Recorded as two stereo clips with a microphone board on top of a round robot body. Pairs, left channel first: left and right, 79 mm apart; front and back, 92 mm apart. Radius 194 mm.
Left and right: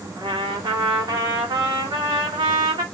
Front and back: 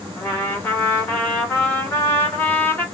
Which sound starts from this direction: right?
A trumpet, at 0.2 s.